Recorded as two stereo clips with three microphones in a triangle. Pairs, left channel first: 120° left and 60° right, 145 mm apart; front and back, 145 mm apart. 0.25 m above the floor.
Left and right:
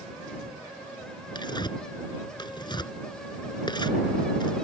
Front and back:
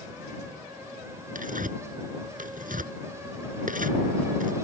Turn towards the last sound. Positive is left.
turn(degrees=175)